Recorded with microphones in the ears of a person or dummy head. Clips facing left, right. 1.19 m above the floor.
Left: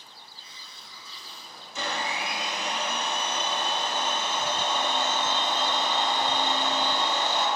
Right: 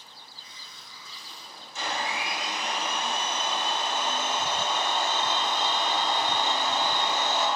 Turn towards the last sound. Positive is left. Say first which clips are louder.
# even
turn(degrees=65)  # may be behind; listen again after turning